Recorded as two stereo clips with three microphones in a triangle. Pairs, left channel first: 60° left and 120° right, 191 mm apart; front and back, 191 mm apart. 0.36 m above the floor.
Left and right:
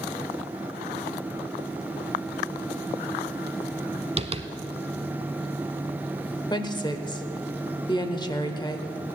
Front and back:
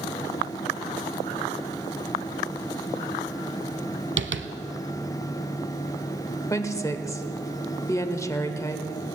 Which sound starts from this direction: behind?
Tapping, at 4.2 s.